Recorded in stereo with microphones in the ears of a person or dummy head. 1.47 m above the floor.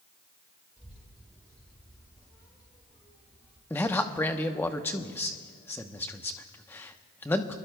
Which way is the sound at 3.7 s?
10° left (ahead or behind).